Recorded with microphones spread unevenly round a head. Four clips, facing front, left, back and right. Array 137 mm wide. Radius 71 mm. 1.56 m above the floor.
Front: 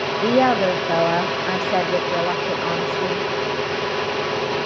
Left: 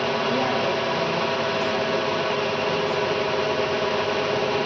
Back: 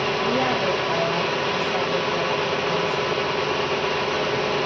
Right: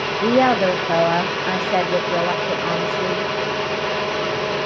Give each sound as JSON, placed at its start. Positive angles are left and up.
{"t": 0.2, "sound": "a woman speaking", "azimuth_deg": -55, "distance_m": 0.7}